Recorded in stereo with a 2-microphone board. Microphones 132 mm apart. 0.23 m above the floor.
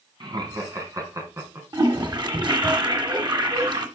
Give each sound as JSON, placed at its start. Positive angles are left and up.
{"t": 0.2, "sound": "laughter", "side_deg": -35, "distance_m": 2.5}
{"t": 1.7, "sound": "a toilet flushing", "side_deg": -35, "distance_m": 1.5}